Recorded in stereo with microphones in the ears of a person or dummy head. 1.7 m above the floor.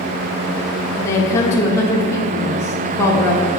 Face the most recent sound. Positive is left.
turn(degrees=15)  # may be behind; listen again after turning